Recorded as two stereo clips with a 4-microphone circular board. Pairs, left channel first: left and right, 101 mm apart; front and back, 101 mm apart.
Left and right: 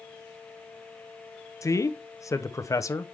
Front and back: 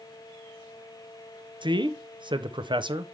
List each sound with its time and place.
1.6 s a man speaking: 145° left, 0.6 m